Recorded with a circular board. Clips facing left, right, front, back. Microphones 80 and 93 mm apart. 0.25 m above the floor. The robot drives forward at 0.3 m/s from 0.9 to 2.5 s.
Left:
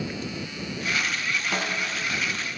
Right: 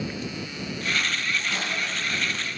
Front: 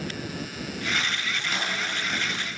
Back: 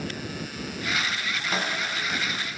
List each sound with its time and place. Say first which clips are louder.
1.5 s a snare drum: left 1 dB, back 4 dB; 125° left, 7 m